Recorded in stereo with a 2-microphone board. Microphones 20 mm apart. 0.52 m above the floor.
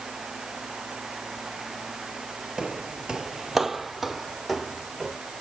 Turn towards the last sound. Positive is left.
turn(degrees=0)  # may be behind; listen again after turning